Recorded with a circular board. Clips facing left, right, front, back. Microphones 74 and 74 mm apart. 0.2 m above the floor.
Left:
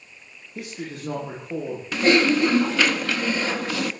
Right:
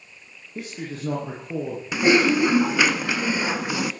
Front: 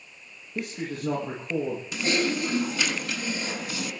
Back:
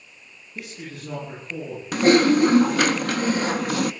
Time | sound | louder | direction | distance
0.6 | a man speaking | right 1 dB, front 5 dB | 40° right | 10 m
1.9 | typing on a keyboard | even, back 12 dB | 165° right | 0.9 m